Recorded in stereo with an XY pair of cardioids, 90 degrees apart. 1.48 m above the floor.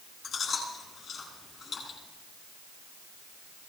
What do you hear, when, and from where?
0.2 s chewing: 65° left, 9.5 m